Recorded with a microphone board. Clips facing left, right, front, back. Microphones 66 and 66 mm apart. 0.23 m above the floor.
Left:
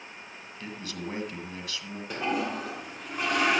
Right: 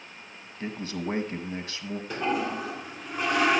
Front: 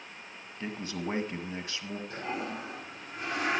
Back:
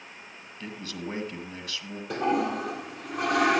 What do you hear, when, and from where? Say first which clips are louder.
0.6 s a man speaking: right 5 dB, front 2 dB; 50° right, 1.8 m
2.1 s a toilet flushing: right 1 dB, back 12 dB; 175° left, 2 m